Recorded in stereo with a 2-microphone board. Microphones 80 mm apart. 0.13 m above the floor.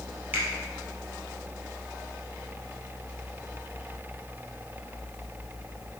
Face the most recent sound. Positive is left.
turn(degrees=-25)  # may be behind; listen again after turning